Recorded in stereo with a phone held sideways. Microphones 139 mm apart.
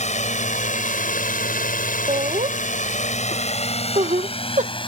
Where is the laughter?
60° right (ahead or behind).